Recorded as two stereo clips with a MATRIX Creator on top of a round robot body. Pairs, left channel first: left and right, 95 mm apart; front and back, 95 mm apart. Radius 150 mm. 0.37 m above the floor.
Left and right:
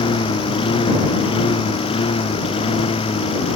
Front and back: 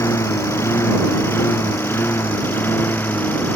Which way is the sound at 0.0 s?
60° left.